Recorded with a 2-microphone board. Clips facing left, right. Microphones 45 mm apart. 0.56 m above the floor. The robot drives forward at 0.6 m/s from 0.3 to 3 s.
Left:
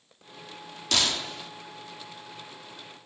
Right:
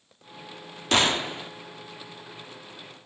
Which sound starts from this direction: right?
A gunshot, at 0.9 s.